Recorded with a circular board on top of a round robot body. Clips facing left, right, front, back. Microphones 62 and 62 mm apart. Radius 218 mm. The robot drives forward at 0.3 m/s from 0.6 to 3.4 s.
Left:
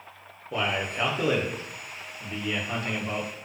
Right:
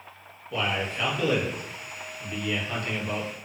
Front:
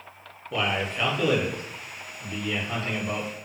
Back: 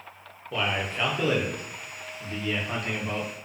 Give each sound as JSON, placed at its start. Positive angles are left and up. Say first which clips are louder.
{"t": 0.5, "sound": "a man speaking", "louder": "even, front 1 dB", "azimuth_deg": 90, "distance_m": 0.9}